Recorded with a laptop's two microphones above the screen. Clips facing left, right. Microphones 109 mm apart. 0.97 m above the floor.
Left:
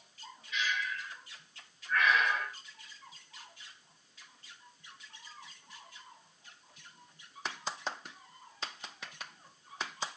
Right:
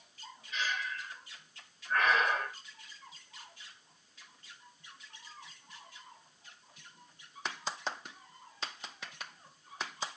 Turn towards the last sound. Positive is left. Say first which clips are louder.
# left 1 dB
turn(degrees=-40)  # may be behind; listen again after turning